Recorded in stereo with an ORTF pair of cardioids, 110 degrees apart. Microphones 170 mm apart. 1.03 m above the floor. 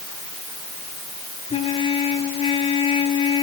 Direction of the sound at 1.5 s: 35° left.